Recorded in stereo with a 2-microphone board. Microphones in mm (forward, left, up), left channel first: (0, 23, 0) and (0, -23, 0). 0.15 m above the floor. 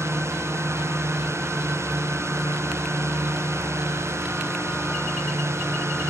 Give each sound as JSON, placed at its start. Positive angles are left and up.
{"t": 0.0, "sound": "a drone", "side_deg": -85}